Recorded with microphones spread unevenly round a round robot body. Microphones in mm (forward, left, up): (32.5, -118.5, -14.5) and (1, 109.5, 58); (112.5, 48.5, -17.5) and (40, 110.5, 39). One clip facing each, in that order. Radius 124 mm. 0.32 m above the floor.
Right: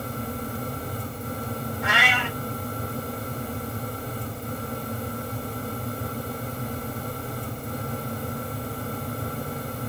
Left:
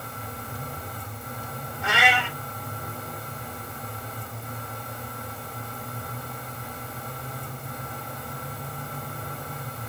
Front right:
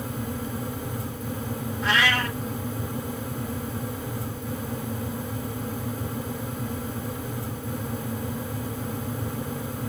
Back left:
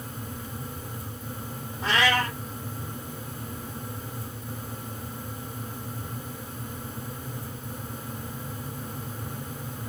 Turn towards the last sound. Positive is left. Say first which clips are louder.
# left 5 dB, back left 1 dB
turn(degrees=90)